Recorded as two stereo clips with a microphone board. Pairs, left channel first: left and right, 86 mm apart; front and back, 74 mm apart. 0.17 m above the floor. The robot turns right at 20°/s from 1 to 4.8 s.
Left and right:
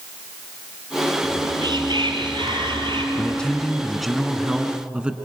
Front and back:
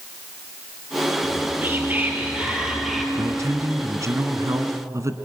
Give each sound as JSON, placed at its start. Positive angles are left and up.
{"t": 1.2, "sound": "whispering", "azimuth_deg": -130, "distance_m": 3.5}
{"t": 3.1, "sound": "a man speaking", "azimuth_deg": 160, "distance_m": 1.5}